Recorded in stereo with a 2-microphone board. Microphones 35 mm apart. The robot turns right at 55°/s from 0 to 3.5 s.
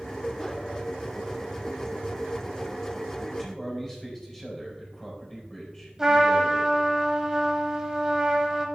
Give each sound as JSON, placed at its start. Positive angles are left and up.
{"t": 3.3, "sound": "a man speaking", "side_deg": 0, "distance_m": 4.5}
{"t": 6.0, "sound": "a trumpet", "side_deg": -15, "distance_m": 2.0}